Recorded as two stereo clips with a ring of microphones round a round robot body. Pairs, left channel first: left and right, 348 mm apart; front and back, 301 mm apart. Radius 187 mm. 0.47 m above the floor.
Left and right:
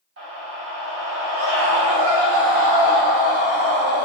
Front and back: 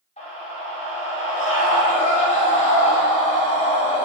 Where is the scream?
60° right, 1.4 m.